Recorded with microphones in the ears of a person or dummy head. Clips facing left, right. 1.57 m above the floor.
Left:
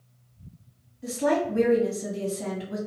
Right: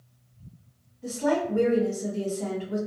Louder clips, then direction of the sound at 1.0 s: Left 1 dB; 10° left (ahead or behind).